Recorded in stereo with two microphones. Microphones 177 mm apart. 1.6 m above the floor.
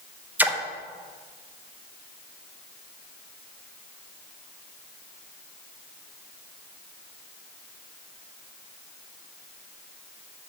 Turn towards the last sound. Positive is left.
turn(degrees=-10)  # may be behind; listen again after turning